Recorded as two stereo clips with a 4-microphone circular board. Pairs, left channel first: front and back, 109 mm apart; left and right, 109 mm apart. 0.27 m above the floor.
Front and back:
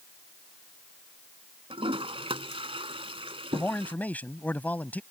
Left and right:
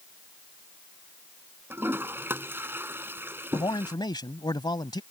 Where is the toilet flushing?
160° right.